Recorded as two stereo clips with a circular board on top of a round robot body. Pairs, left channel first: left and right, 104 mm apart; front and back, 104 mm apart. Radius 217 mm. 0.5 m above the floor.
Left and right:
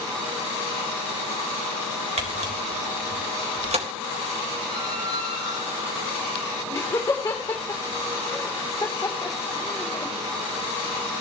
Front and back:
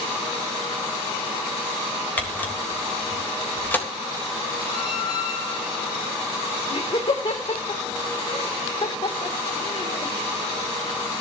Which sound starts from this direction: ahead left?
Laughter, at 6.7 s.